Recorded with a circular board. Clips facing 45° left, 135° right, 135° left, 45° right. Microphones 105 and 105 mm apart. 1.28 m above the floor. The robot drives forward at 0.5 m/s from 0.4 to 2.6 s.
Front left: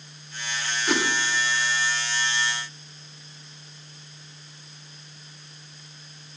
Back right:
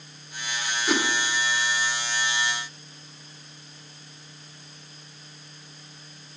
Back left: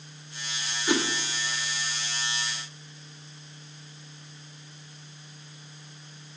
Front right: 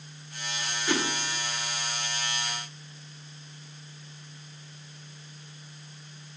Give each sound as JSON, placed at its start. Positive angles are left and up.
{"t": 0.9, "sound": "a whoosh", "azimuth_deg": 145, "distance_m": 0.7}